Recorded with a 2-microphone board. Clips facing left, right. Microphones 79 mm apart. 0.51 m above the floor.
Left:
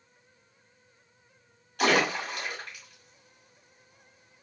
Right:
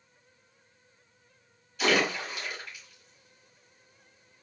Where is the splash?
65° left (ahead or behind), 1.6 m.